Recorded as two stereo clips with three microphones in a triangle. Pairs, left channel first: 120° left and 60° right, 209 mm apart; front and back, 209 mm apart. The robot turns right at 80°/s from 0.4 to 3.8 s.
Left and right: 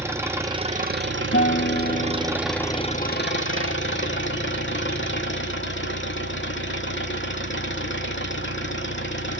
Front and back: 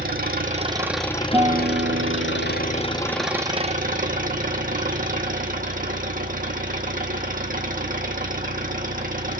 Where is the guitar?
110° left, 0.5 m; by 3.3 s 95° right, 0.5 m.